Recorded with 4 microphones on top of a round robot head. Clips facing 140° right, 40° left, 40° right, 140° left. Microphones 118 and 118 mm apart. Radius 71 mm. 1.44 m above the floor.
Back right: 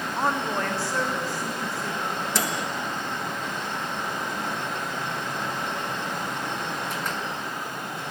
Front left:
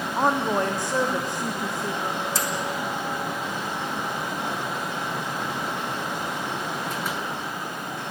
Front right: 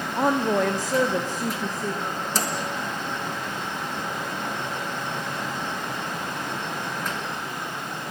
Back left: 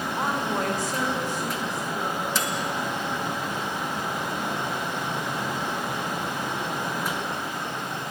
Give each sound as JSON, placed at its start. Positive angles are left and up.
{"t": 0.2, "sound": "a woman speaking", "azimuth_deg": -30, "distance_m": 0.7}
{"t": 2.3, "sound": "a microwave", "azimuth_deg": -95, "distance_m": 1.3}